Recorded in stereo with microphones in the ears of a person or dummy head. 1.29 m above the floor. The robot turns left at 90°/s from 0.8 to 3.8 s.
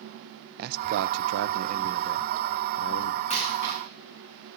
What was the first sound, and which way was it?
A man speaking, 55° right.